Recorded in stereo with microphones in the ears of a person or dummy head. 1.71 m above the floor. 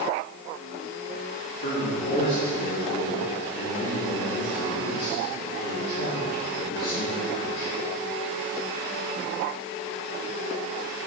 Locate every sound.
1.6 s a man speaking: 70° left (ahead or behind), 1.8 m